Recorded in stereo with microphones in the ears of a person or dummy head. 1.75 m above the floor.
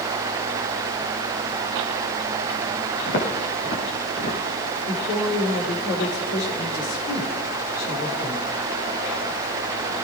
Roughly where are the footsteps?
Left.